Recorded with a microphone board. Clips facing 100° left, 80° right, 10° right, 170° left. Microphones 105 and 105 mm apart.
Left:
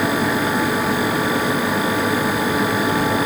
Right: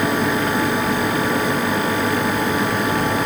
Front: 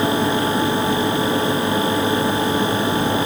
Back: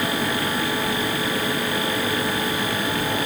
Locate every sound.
Only background noise.